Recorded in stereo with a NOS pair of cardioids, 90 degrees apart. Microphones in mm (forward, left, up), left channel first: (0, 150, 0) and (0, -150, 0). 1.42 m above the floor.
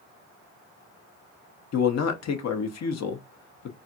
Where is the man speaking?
60° left, 0.9 m.